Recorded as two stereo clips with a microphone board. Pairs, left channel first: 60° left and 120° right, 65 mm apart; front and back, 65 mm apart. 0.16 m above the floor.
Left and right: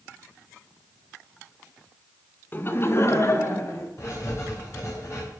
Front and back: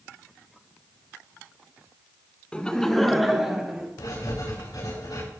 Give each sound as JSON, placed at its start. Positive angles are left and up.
{"t": 2.5, "sound": "laughter", "azimuth_deg": 55, "distance_m": 1.2}
{"t": 4.0, "sound": "writing", "azimuth_deg": 15, "distance_m": 8.5}